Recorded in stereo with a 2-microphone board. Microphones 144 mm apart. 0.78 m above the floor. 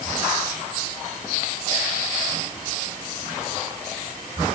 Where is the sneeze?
I don't hear a sneeze.